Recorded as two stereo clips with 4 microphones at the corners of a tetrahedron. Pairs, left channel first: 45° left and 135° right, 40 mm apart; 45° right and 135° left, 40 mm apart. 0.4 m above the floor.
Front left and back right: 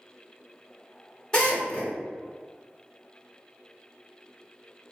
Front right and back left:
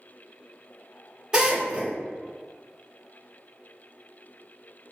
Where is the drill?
100° left, 1.2 m.